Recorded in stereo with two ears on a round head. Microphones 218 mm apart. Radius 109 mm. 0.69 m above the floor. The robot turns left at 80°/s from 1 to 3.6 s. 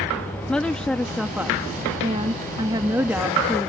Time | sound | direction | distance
0.5 | a woman speaking | 5° left (ahead or behind) | ?